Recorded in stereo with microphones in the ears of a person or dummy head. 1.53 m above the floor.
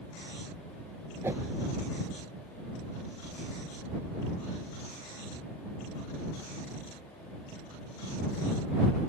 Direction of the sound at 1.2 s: 10° right (ahead or behind).